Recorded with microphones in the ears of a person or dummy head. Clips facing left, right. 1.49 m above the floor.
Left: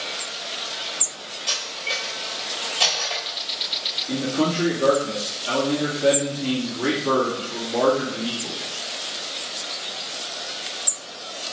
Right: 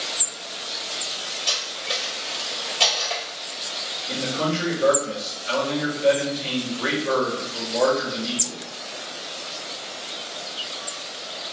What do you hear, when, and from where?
1.5 s cutlery clinking: 5° left (ahead or behind), 2 m
4.1 s a man speaking: 60° left (ahead or behind), 2 m